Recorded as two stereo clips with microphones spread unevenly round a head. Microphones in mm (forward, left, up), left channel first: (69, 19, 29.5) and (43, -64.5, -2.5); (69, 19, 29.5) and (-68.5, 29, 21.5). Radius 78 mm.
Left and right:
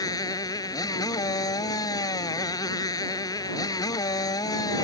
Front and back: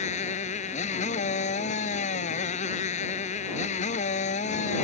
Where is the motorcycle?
30° left.